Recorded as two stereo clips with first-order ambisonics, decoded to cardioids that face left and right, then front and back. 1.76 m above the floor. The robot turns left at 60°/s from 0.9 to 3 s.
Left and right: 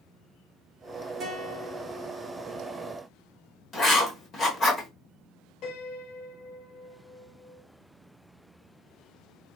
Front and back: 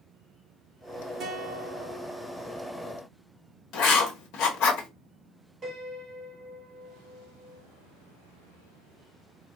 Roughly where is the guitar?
Behind right.